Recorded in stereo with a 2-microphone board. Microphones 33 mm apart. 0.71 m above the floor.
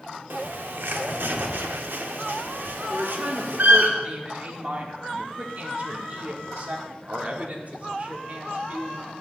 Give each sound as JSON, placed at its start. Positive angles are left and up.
{"t": 0.3, "sound": "a bird", "side_deg": -85, "distance_m": 0.7}
{"t": 2.9, "sound": "a woman speaking", "side_deg": -45, "distance_m": 1.4}